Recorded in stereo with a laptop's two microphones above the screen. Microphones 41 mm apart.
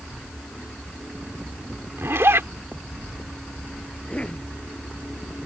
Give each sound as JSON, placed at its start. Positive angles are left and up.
{"t": 2.0, "sound": "a zipper", "side_deg": -85}
{"t": 3.9, "sound": "a cough", "side_deg": 25}